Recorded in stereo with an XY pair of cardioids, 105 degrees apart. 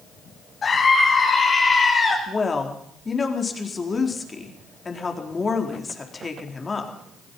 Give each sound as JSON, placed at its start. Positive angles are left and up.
{"t": 0.6, "sound": "a scream", "azimuth_deg": 40, "distance_m": 4.5}
{"t": 2.3, "sound": "a woman speaking", "azimuth_deg": 30, "distance_m": 4.0}